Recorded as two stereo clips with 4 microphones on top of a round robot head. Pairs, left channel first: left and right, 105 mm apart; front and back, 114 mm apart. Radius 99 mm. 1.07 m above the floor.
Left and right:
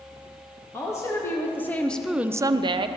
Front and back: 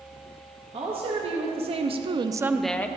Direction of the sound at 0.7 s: 150° left.